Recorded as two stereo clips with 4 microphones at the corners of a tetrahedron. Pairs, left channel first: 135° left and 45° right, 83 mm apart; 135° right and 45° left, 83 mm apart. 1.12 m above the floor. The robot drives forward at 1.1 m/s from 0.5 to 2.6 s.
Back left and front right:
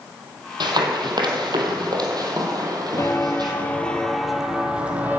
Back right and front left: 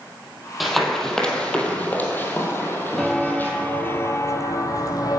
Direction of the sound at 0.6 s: 45° right.